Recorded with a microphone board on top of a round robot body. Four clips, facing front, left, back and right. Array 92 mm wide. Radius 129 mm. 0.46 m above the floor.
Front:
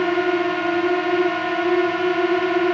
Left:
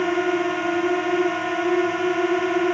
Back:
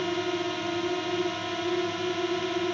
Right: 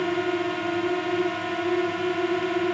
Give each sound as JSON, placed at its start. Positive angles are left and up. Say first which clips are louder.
{"t": 0.0, "sound": "a drone", "louder": "left 4 dB, front 10 dB", "azimuth_deg": 25}